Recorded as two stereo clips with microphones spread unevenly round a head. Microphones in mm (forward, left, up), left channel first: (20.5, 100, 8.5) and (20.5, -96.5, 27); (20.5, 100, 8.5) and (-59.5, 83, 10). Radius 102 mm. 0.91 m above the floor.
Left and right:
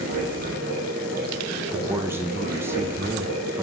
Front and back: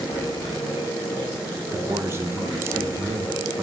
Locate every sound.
0.0 s running water: 55° right, 2 m
1.7 s a man speaking: 165° right, 1.0 m